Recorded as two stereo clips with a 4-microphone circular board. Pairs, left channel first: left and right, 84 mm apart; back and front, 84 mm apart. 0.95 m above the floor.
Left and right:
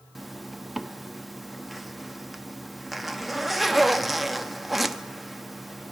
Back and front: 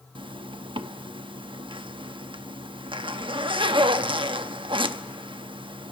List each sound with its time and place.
0.1 s a zipper: straight ahead, 0.9 m